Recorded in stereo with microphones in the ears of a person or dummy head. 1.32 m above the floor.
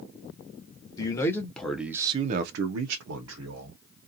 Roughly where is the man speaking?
Centre.